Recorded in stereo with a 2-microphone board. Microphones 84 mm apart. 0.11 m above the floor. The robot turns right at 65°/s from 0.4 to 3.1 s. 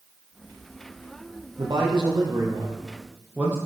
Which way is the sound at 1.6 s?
115° right.